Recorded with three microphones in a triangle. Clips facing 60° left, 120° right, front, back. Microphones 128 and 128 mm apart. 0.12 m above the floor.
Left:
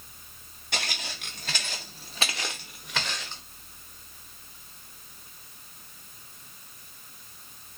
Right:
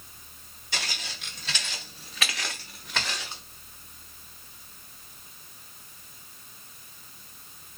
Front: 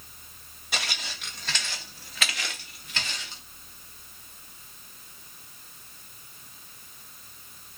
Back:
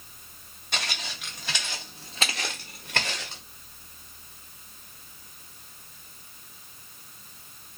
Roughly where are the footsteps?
Left.